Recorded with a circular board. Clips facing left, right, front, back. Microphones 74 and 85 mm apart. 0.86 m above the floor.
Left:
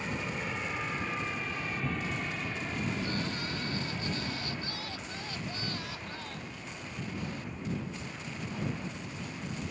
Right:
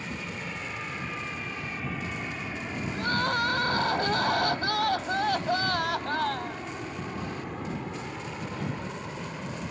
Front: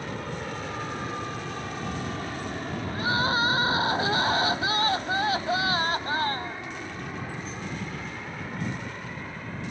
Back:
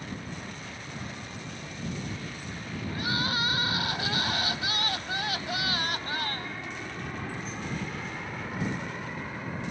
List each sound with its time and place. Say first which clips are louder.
0.0 s an aircraft: left 1 dB, front 5 dB; 10° left; by 9.7 s 100° right
2.9 s crying: right 8 dB, front 6 dB; 60° right